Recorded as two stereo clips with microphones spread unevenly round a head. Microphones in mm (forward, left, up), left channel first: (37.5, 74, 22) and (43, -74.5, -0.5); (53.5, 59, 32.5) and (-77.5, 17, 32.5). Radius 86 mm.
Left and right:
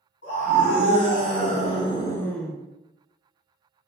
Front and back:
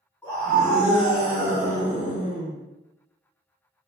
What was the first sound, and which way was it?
A scream, 80° left.